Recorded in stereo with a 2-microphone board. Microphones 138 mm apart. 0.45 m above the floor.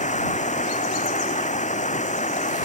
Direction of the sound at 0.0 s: 60° left (ahead or behind).